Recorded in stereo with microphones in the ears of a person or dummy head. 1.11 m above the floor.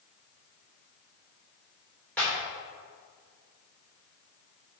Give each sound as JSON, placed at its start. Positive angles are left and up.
{"t": 2.2, "sound": "a clap", "side_deg": 5, "distance_m": 3.0}